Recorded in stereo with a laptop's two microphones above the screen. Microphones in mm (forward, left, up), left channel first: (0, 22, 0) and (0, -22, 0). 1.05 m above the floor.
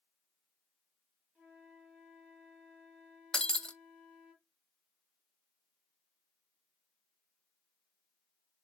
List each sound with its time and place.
1.4 s a flute: 25° right (ahead or behind), 2.5 m
3.3 s breaking glass: 20° left (ahead or behind), 0.5 m